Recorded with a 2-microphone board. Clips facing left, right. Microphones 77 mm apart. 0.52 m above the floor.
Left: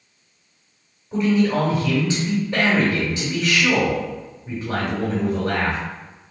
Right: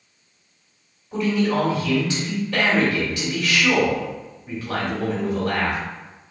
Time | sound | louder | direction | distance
1.1 | a man speaking | left 2 dB | 25° left (ahead or behind) | 1.5 m